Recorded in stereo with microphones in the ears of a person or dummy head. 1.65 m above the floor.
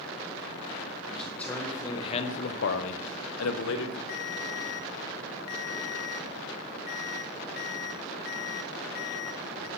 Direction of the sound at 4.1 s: 25° left (ahead or behind).